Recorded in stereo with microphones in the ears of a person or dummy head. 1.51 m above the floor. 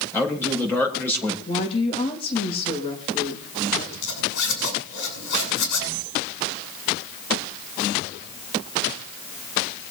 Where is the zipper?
70° left (ahead or behind), 7.5 m.